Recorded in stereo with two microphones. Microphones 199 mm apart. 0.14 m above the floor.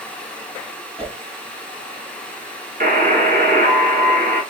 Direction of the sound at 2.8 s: 45° right (ahead or behind).